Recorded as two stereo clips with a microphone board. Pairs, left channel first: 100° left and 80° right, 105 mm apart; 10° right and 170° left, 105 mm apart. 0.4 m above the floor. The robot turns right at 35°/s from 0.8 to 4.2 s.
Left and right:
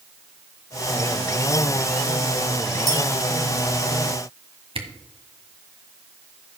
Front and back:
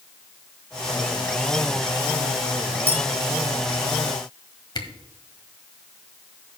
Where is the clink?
35° right, 4.5 m; by 3.0 s 30° right, 4.5 m.